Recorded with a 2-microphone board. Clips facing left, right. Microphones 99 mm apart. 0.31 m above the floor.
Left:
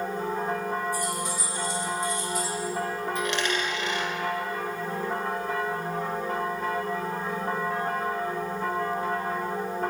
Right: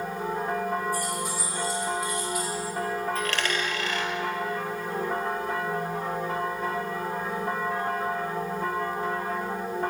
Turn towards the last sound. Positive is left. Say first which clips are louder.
# left 1 dB
turn(degrees=20)  # may be behind; listen again after turning